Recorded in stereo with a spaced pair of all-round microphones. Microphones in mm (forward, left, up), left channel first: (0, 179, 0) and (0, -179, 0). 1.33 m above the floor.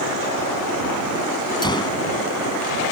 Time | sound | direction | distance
1.6 | a gunshot | 10° left (ahead or behind) | ?